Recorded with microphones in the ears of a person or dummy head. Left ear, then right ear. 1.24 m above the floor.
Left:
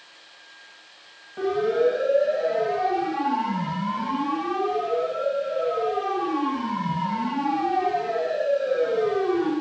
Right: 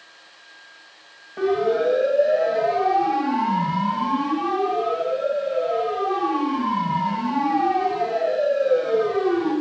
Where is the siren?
10° right (ahead or behind), 8.5 m; by 9.5 s 5° left (ahead or behind), 12.5 m.